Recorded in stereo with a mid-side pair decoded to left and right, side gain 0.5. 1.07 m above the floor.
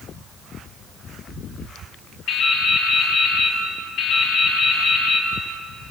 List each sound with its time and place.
2.3 s dripping: 65° left, 5 m